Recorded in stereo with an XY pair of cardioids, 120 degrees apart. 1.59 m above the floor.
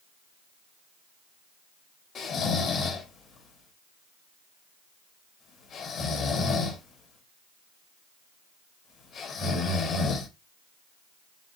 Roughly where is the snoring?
Ahead left.